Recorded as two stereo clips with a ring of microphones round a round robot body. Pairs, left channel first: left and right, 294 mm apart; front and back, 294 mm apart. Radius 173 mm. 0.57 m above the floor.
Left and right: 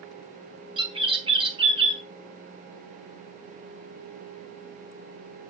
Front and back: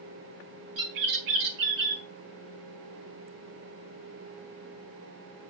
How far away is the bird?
About 3.5 m.